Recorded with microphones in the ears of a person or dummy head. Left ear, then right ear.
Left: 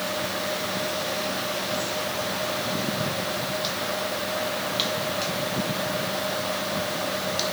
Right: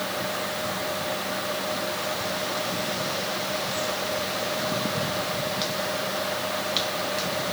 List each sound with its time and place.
Only background noise.